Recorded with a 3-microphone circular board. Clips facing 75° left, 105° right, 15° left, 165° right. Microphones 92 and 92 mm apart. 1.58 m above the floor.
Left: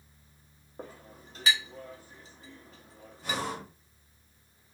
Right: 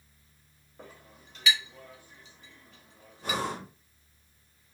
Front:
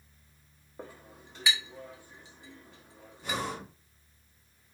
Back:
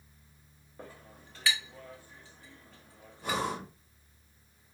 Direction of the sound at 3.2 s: 140° right.